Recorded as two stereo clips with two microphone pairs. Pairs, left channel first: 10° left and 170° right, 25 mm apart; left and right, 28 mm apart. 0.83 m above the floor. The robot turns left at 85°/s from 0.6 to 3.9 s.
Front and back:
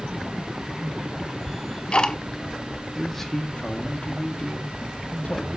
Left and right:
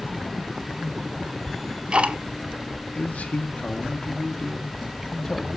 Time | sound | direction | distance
1.5 | ticking | straight ahead | 0.7 m
3.0 | a man speaking | 100° left | 1.2 m